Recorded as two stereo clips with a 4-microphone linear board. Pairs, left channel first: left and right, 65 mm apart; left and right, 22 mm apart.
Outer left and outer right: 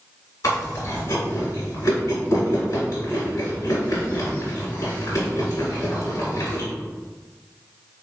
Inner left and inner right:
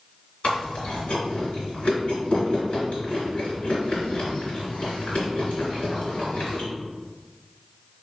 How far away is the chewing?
About 2.0 m.